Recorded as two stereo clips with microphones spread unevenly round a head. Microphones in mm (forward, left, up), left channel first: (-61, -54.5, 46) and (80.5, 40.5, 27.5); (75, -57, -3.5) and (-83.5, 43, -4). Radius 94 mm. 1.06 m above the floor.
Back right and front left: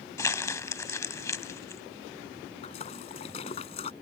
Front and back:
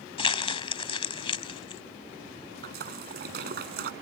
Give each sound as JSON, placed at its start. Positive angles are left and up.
{"t": 0.2, "sound": "crumpling", "azimuth_deg": -85}
{"t": 2.6, "sound": "a splash", "azimuth_deg": 165}